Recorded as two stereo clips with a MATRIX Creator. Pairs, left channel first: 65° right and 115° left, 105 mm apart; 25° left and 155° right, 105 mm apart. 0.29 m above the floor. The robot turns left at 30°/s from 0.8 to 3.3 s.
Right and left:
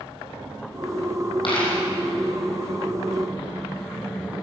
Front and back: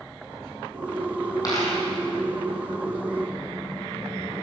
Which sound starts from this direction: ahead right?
A dropped coin, at 1.4 s.